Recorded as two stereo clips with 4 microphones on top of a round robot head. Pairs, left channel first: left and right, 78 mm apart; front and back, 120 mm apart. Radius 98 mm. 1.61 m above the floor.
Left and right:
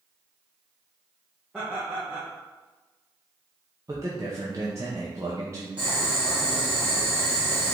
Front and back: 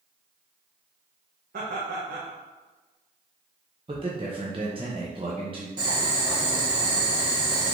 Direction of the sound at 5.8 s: 155° right.